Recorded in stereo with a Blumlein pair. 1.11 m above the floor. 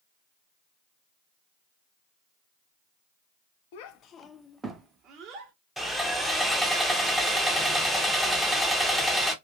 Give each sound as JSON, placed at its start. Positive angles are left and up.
{"t": 3.7, "sound": "a child speaking", "azimuth_deg": 50, "distance_m": 0.6}
{"t": 5.8, "sound": "sawing", "azimuth_deg": -5, "distance_m": 0.6}